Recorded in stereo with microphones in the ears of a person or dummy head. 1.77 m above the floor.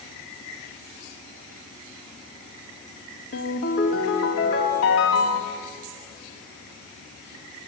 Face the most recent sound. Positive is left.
turn(degrees=55)  # may be behind; listen again after turning